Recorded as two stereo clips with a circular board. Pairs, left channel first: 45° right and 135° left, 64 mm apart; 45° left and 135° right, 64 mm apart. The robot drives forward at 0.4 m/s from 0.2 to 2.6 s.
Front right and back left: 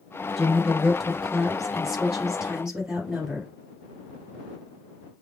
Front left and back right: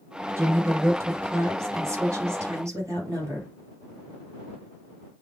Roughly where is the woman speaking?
Behind right.